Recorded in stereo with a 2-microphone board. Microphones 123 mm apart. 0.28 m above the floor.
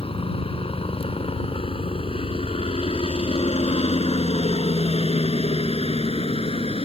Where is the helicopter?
50° left (ahead or behind); by 6.8 s 55° left (ahead or behind).